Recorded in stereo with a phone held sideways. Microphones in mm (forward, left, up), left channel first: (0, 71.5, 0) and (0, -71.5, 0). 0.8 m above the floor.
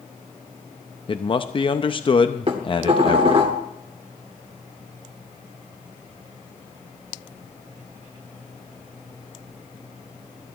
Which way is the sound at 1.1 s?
35° left (ahead or behind).